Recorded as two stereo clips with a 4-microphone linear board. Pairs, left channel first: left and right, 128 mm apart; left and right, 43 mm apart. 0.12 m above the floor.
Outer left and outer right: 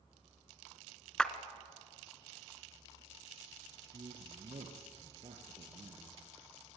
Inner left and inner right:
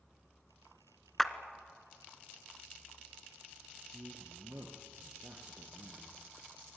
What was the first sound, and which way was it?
A clap, 5° left (ahead or behind).